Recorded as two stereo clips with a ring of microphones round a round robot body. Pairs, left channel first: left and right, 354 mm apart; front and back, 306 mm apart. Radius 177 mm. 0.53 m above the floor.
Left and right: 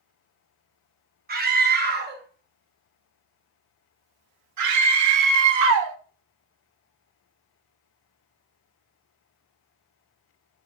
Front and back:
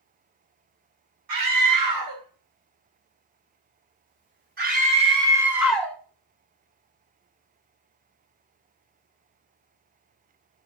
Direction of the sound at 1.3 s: 155° right.